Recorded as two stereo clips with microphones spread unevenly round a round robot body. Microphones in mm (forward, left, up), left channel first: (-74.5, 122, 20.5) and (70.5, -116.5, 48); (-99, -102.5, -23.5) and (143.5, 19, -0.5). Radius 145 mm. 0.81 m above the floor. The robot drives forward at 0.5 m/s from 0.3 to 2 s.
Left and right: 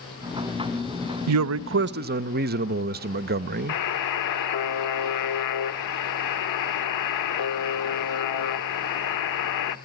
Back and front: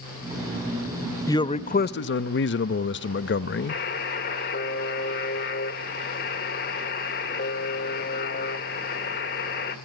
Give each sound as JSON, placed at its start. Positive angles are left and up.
{"t": 1.3, "sound": "a man speaking", "azimuth_deg": -80, "distance_m": 0.7}
{"t": 3.7, "sound": "a buzzer", "azimuth_deg": 145, "distance_m": 1.0}